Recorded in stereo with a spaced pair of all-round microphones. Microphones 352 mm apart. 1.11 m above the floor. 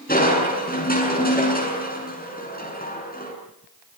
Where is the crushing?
25° left (ahead or behind), 7.5 m.